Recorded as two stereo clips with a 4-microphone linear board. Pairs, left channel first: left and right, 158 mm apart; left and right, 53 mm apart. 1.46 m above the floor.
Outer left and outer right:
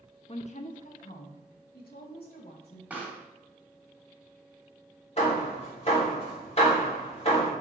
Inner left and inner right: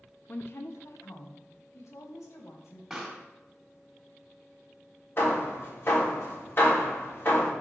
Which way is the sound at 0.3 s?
40° left (ahead or behind).